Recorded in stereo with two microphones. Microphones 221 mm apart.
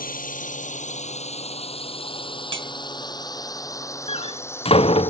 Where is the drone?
40° left (ahead or behind); by 5.1 s 10° left (ahead or behind).